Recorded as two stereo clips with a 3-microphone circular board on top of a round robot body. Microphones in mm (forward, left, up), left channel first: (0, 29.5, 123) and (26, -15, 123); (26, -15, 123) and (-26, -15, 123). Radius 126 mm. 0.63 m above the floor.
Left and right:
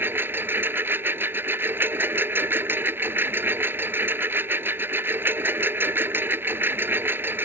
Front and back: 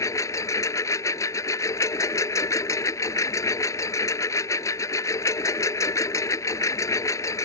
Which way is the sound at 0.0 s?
10° right.